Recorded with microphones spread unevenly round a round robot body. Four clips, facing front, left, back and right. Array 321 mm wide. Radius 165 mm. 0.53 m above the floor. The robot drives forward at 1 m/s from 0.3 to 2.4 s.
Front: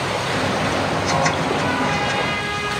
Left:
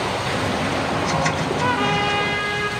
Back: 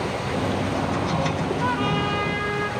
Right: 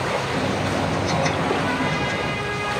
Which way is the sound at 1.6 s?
115° left.